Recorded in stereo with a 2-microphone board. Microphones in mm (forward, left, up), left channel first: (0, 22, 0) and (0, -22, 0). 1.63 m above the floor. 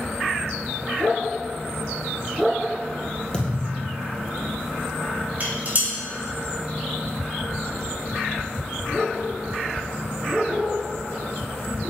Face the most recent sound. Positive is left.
turn(degrees=-40)  # may be behind; listen again after turning